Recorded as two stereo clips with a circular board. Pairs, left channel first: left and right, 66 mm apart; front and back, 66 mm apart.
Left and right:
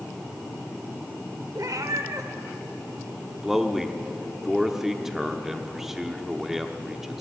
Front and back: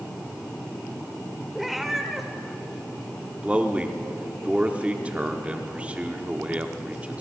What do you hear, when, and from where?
1.6 s a cat meowing: 95° right, 0.9 m
3.4 s a man speaking: 165° right, 0.9 m